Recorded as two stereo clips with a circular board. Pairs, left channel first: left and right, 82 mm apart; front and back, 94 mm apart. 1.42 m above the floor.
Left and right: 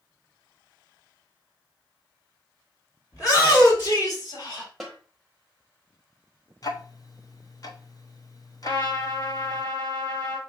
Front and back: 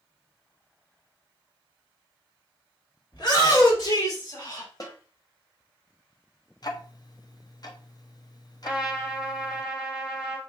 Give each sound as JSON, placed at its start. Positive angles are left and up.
{"t": 3.1, "sound": "a shout", "azimuth_deg": 40, "distance_m": 2.5}
{"t": 4.8, "sound": "a snare drum", "azimuth_deg": -5, "distance_m": 1.1}
{"t": 6.6, "sound": "ticking", "azimuth_deg": 45, "distance_m": 0.7}
{"t": 8.6, "sound": "a trumpet", "azimuth_deg": 95, "distance_m": 2.0}